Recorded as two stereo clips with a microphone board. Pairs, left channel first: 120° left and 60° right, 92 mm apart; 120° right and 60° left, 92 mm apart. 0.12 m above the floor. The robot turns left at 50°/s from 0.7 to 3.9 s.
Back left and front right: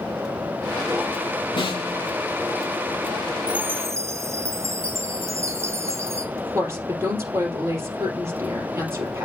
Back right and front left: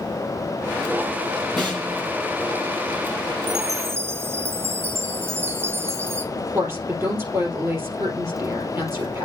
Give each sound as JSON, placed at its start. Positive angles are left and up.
{"t": 1.6, "sound": "a snare drum", "azimuth_deg": 150, "distance_m": 5.5}
{"t": 3.5, "sound": "a chime", "azimuth_deg": 20, "distance_m": 1.2}
{"t": 6.3, "sound": "a woman speaking", "azimuth_deg": 0, "distance_m": 3.5}